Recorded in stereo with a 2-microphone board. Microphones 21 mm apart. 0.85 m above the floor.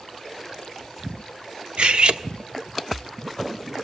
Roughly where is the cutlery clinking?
Right.